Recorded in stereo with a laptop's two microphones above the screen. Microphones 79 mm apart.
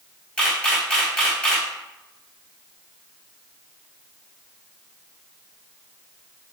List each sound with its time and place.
0.4 s a camera shutter: 15° left (ahead or behind), 1.9 m